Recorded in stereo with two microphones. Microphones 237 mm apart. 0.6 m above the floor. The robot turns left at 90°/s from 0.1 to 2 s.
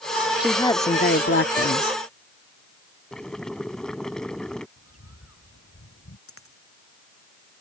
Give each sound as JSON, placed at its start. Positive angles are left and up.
{"t": 0.4, "sound": "a woman speaking", "azimuth_deg": -175}
{"t": 3.1, "sound": "boiling", "side_deg": 5}
{"t": 4.8, "sound": "a bird", "side_deg": 75}
{"t": 6.3, "sound": "a dropped coin", "side_deg": 65}